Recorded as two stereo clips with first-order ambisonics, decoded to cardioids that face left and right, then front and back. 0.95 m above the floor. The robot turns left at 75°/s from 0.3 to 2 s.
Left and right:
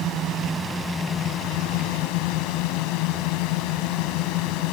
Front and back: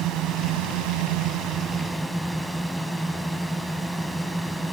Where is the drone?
140° right; by 4.7 s 95° left.